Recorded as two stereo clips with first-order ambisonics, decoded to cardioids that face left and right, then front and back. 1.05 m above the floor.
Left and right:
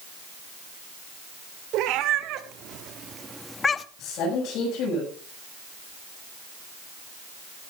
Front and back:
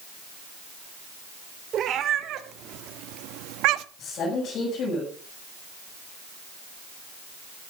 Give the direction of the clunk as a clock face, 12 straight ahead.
I don't hear a clunk.